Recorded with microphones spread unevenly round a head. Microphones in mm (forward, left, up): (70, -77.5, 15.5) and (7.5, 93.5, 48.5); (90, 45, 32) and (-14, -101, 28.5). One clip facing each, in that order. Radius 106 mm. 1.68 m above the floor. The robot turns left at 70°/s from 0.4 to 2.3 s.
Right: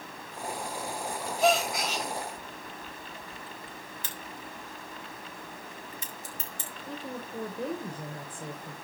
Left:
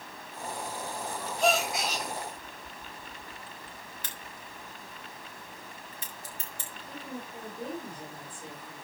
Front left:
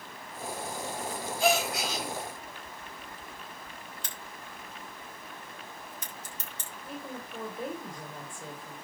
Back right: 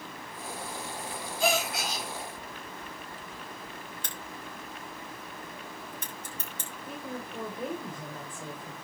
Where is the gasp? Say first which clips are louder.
Right 2 dB, front left 1 dB; 155° right, 2 m; by 2.1 s 160° left, 2 m.